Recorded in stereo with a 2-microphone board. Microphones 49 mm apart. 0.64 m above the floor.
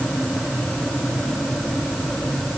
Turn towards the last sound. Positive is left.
No sound to turn to.